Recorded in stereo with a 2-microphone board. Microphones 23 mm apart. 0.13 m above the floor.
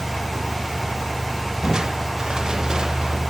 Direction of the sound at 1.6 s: 30° right (ahead or behind).